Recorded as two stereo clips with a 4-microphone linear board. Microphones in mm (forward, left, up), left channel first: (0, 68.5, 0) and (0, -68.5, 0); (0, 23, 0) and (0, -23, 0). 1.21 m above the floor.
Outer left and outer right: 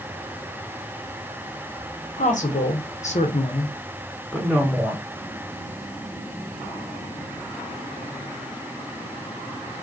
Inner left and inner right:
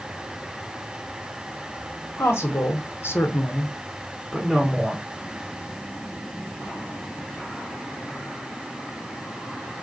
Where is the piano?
I don't hear a piano.